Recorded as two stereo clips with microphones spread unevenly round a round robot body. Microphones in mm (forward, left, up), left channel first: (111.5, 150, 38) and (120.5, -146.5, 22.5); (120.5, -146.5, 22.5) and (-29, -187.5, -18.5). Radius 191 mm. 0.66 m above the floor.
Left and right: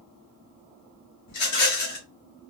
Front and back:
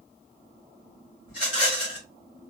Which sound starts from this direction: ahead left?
A rattle, at 1.3 s.